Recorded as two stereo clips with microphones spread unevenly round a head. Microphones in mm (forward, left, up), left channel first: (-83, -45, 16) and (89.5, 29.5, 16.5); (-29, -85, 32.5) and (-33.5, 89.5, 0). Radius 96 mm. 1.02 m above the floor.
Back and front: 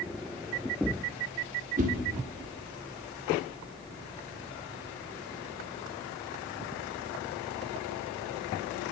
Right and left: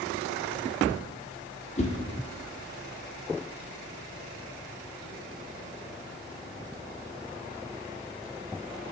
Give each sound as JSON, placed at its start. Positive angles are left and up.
{"t": 1.8, "sound": "a whoosh", "azimuth_deg": -30, "distance_m": 1.2}